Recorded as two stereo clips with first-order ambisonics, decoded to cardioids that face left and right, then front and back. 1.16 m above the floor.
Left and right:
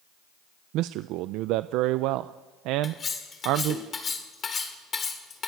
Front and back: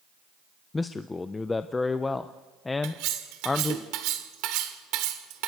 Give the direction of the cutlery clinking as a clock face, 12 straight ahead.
7 o'clock.